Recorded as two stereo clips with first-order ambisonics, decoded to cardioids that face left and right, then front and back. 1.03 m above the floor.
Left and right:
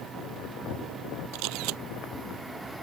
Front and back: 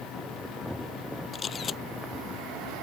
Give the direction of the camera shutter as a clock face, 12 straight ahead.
2 o'clock.